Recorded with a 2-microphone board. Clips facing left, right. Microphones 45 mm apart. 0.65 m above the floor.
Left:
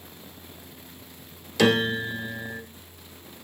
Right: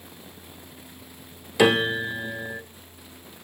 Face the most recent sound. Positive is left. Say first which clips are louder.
# right 2 dB
turn(degrees=-20)  # may be behind; listen again after turning